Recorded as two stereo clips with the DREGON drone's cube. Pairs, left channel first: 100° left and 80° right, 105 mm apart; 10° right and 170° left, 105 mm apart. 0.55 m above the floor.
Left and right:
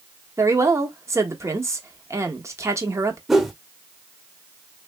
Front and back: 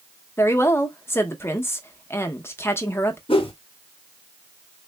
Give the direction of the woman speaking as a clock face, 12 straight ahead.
2 o'clock.